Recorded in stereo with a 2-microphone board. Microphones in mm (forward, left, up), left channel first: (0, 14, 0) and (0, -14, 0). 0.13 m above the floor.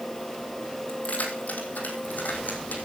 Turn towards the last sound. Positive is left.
turn(degrees=75)  # may be behind; listen again after turning